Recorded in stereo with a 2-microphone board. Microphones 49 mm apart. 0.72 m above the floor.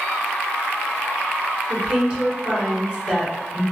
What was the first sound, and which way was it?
A woman speaking, 20° right (ahead or behind).